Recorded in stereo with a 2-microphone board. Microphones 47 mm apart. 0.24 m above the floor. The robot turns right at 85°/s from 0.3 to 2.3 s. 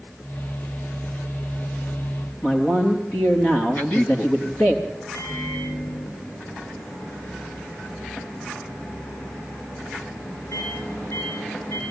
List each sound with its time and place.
2.4 s a man speaking: 60° left (ahead or behind), 4 m
3.8 s a man speaking: 40° left (ahead or behind), 1.6 m
5.1 s a microwave: 80° left, 10 m